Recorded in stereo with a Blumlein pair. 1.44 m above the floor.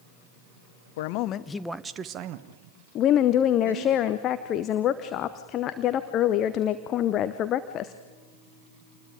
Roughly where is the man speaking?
Ahead left.